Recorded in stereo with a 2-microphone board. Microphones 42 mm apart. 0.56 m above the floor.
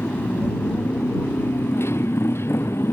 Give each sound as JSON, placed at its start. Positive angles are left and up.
{"t": 0.0, "sound": "a motorcycle", "side_deg": 85}